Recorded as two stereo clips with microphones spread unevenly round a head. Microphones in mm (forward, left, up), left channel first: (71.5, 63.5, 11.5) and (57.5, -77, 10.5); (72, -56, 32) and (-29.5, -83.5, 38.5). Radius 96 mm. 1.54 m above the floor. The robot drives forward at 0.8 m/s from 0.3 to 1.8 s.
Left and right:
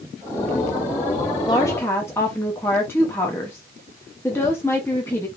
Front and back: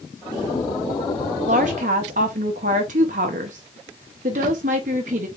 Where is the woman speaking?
155° left, 0.5 m; by 5.3 s 165° left, 0.8 m.